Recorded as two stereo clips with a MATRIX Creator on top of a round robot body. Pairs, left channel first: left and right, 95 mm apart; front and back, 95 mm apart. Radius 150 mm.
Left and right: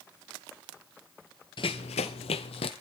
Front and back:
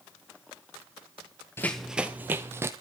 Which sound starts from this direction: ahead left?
Running footsteps, at 1.6 s.